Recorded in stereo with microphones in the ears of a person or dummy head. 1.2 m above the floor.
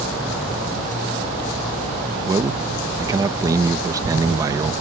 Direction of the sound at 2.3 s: 15° right (ahead or behind).